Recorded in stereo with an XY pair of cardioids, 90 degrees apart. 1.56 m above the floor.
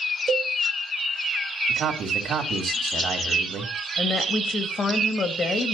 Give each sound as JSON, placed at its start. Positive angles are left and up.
{"t": 0.3, "sound": "a cowbell", "azimuth_deg": -45, "distance_m": 2.0}
{"t": 1.7, "sound": "a man speaking", "azimuth_deg": -65, "distance_m": 3.5}
{"t": 4.0, "sound": "a woman speaking", "azimuth_deg": 50, "distance_m": 2.5}